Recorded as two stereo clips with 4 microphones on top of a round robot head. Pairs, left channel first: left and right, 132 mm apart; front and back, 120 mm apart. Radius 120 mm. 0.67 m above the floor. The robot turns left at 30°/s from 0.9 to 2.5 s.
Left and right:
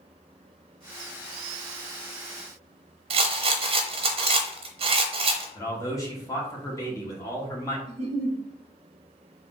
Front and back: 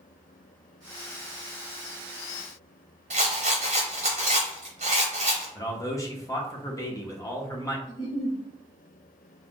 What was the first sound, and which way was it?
A rattle, 130° right.